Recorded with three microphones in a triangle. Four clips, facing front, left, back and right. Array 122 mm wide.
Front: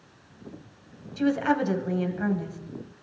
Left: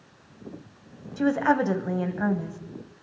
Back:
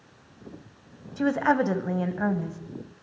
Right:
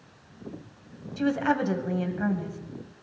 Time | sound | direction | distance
1.2 | a woman speaking | 145° left | 1.3 m